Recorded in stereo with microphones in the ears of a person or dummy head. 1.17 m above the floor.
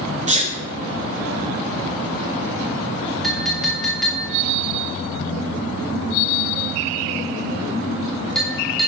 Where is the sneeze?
35° right (ahead or behind), 0.6 m.